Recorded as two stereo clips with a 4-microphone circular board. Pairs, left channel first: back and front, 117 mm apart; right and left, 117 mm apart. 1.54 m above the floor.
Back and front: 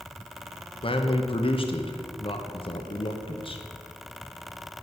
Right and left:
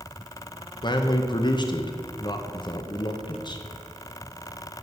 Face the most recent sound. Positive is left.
turn(degrees=-140)